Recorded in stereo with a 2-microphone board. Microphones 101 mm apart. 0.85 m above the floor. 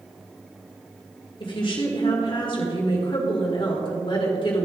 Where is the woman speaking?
50° left (ahead or behind), 2.0 m.